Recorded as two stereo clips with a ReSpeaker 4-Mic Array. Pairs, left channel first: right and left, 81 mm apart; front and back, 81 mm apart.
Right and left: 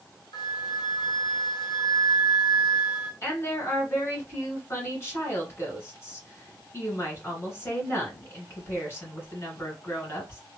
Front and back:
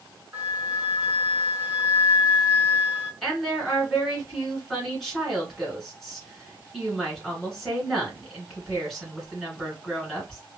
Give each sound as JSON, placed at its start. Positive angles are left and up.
{"t": 0.3, "sound": "a flute", "azimuth_deg": -110, "distance_m": 0.7}
{"t": 3.2, "sound": "a woman speaking", "azimuth_deg": -90, "distance_m": 1.8}